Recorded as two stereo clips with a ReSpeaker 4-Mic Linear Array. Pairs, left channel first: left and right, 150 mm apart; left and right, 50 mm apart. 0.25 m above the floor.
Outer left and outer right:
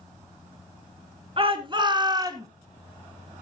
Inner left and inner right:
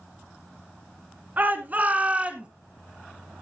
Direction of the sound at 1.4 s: 35° right (ahead or behind).